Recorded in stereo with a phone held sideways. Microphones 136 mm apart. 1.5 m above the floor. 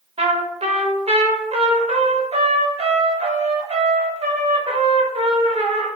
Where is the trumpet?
45° right (ahead or behind), 0.6 m.